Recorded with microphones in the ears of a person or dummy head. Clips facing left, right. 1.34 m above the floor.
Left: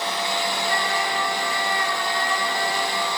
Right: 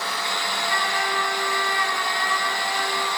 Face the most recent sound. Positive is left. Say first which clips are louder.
# left 2 dB
turn(degrees=30)  # may be behind; listen again after turning